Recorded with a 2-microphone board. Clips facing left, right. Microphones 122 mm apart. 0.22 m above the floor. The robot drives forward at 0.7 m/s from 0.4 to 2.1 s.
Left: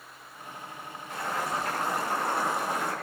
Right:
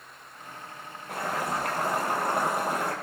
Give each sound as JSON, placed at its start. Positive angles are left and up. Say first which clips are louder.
{"t": 1.1, "sound": "boiling", "louder": "right 2 dB", "side_deg": -65, "distance_m": 6.0}